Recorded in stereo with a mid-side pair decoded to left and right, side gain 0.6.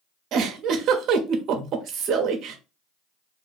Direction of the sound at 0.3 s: 55° right.